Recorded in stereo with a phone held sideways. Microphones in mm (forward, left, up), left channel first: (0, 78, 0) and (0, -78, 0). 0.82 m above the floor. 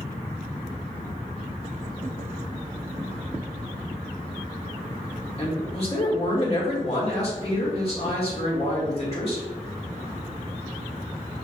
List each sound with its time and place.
5.4 s a man speaking: 40° left (ahead or behind), 1.8 m